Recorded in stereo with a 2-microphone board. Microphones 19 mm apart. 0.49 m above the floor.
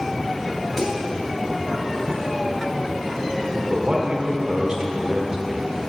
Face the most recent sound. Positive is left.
turn(degrees=-50)  # may be behind; listen again after turning